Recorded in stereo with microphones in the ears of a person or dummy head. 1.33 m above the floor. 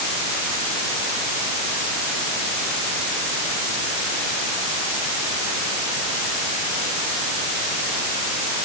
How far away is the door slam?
I don't hear a door slam.